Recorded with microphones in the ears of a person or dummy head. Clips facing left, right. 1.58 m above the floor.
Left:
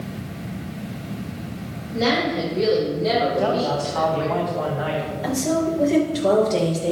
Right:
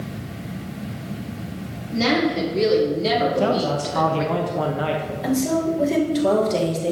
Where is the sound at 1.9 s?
55° right (ahead or behind), 4 m; by 4.3 s 40° right (ahead or behind), 3 m.